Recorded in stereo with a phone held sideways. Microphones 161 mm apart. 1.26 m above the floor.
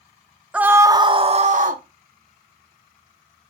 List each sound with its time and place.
0.5 s a scream: 5° right (ahead or behind), 0.8 m; by 1.8 s 60° right (ahead or behind), 0.9 m